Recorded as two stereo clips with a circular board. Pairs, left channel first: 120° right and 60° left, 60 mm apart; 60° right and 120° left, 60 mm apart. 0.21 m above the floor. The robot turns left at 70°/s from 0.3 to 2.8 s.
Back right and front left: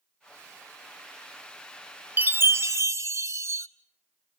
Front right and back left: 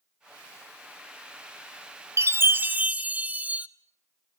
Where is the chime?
110° left, 0.8 m; by 3.7 s 65° left, 0.8 m.